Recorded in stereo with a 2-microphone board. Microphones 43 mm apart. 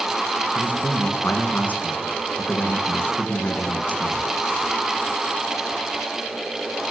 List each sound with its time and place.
0.6 s a man speaking: 45° left (ahead or behind), 3 m